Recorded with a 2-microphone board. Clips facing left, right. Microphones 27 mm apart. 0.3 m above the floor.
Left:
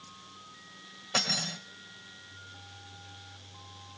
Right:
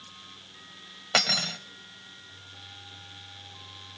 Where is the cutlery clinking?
40° right (ahead or behind), 1.0 m.